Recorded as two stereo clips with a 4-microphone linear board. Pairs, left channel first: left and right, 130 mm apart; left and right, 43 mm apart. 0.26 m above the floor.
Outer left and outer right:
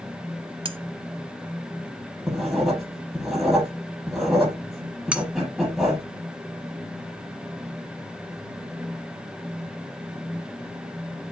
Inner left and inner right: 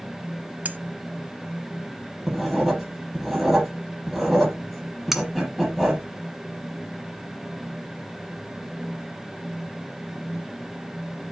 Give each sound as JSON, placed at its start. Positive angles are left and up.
{"t": 0.7, "sound": "cutlery clinking", "side_deg": -40, "distance_m": 0.9}
{"t": 2.3, "sound": "writing", "side_deg": 0, "distance_m": 6.5}
{"t": 5.1, "sound": "cutlery clinking", "side_deg": -10, "distance_m": 1.3}